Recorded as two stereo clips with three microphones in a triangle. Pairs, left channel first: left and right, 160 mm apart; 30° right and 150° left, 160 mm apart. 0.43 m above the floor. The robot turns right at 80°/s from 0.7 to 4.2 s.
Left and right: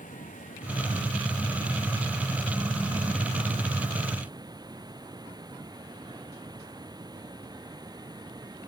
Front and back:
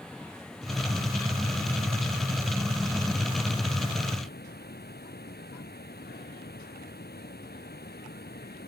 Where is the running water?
55° left; by 8.7 s 25° right.